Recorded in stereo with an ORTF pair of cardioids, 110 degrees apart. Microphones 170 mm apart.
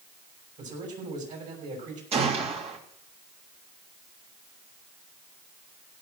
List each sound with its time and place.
0.6 s a man speaking: 45° right, 6.5 m
2.1 s a gunshot: 40° right, 3 m